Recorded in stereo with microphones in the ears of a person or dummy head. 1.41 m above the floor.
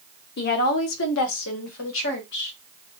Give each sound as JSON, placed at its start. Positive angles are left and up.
{"t": 0.4, "sound": "a woman speaking", "side_deg": 50, "distance_m": 0.7}